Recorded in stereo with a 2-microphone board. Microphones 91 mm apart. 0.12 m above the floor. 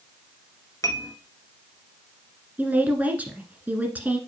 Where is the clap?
I don't hear a clap.